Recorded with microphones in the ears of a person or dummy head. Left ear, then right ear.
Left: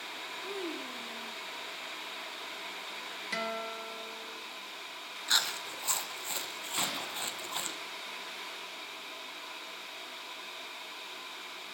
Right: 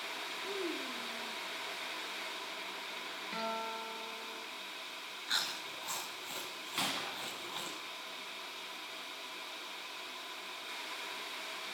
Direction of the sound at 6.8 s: 5° left (ahead or behind).